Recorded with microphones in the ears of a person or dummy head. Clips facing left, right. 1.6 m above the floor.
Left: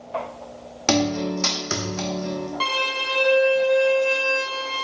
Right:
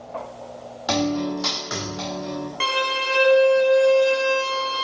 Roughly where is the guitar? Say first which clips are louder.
Left 1 dB; left.